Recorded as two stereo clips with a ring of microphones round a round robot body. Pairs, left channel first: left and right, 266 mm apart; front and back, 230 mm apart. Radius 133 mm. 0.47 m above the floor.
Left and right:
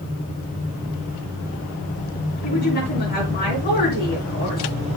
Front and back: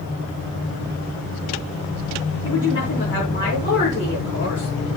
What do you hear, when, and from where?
2.4 s a woman speaking: 35° left, 5.5 m